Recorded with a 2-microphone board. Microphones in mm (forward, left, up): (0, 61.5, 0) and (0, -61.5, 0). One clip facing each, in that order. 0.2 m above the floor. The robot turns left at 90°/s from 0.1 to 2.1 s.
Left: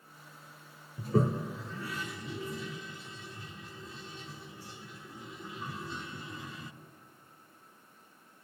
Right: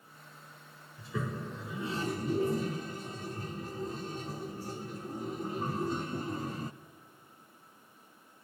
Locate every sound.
1.0 s a toilet flushing: 50° left (ahead or behind), 0.7 m; by 6.7 s 40° right (ahead or behind), 0.7 m